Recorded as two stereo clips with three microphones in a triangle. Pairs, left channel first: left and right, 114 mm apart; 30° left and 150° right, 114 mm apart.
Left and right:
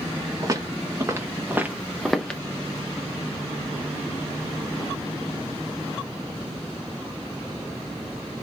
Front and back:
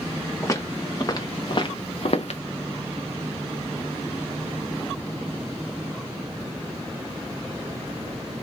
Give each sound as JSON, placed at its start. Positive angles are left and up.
{"t": 0.4, "sound": "footsteps", "azimuth_deg": -35, "distance_m": 1.7}